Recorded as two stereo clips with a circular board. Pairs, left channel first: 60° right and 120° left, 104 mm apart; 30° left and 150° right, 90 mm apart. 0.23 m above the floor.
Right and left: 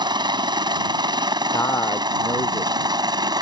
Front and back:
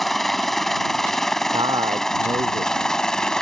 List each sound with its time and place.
0.0 s a helicopter: 115° left; by 3.4 s 110° left
1.5 s a man speaking: 120° right